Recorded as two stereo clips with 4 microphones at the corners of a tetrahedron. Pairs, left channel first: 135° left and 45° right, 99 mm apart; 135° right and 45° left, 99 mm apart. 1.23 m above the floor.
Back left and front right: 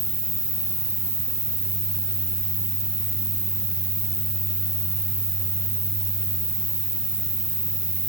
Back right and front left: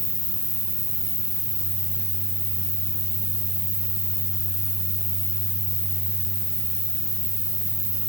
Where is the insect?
135° left, 5.5 m.